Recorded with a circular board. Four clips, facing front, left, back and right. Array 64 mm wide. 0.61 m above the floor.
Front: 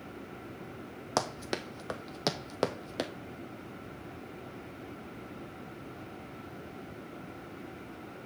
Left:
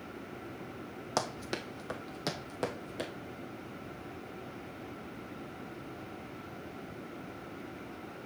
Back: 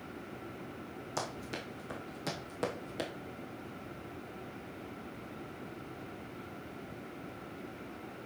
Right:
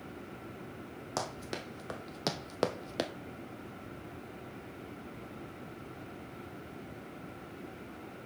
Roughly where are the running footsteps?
Ahead.